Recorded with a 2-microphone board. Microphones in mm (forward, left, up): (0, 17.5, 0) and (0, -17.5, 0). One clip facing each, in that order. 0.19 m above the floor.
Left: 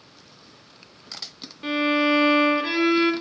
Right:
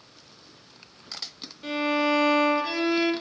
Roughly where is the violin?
Left.